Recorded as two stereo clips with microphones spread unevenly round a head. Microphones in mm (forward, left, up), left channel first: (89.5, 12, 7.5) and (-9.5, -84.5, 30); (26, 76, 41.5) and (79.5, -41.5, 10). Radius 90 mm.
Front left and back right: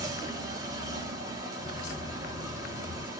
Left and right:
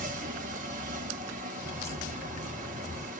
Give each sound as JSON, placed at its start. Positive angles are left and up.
{"t": 0.0, "sound": "a machine running", "azimuth_deg": -100, "distance_m": 0.9}
{"t": 1.6, "sound": "a crack", "azimuth_deg": 75, "distance_m": 1.4}